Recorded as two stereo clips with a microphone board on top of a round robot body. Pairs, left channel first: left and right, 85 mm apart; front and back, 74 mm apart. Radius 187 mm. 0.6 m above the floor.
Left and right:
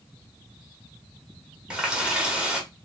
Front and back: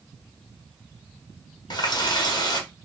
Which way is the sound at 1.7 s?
10° right.